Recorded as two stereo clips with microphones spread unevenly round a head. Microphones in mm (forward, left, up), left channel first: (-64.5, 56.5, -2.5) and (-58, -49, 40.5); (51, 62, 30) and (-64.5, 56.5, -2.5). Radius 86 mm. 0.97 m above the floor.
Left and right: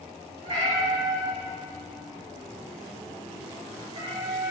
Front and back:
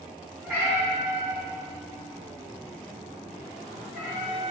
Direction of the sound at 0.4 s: 90° right.